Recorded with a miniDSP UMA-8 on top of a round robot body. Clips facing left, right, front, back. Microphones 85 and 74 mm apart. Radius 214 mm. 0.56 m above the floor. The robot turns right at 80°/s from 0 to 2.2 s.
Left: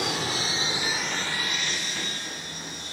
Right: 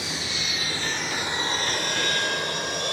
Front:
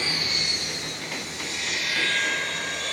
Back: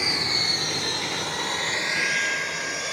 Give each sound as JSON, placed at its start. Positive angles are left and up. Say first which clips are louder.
{"t": 0.0, "sound": "an aircraft", "louder": "left 4 dB, back 2 dB", "azimuth_deg": 105}